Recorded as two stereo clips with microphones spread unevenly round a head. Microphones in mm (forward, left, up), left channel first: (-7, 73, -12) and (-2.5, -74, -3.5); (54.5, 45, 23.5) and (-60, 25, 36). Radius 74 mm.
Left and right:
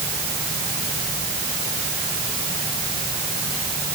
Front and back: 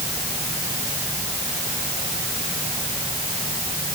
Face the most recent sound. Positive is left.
No sound to turn to.